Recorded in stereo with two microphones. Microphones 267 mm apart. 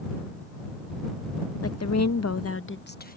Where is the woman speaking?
60° left (ahead or behind); by 3.2 s 30° left (ahead or behind).